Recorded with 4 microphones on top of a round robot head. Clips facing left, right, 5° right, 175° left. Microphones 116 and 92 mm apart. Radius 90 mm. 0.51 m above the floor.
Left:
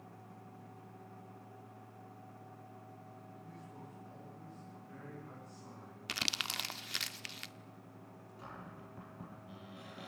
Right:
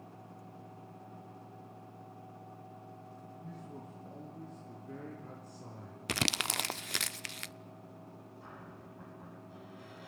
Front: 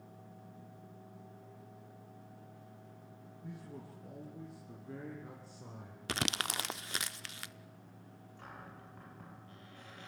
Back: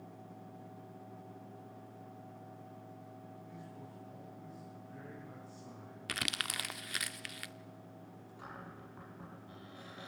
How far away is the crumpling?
About 0.6 m.